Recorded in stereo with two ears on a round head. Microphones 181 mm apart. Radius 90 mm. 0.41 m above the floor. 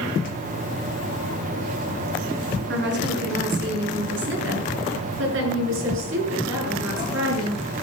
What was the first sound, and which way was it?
A woman speaking, 60° right (ahead or behind).